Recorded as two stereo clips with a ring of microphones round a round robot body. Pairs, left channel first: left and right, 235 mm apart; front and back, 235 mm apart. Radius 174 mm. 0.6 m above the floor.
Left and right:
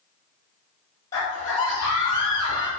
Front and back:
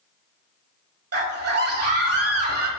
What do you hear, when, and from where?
1.1 s a scream: 170° left, 2 m